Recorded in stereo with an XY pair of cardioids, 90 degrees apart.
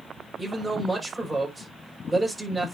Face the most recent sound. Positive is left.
turn(degrees=-10)